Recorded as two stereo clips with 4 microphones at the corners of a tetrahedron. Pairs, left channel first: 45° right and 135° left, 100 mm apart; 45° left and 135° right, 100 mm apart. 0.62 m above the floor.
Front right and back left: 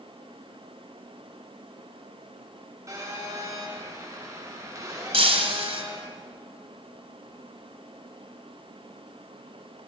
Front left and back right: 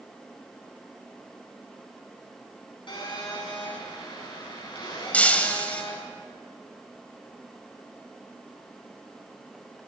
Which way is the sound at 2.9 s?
80° left.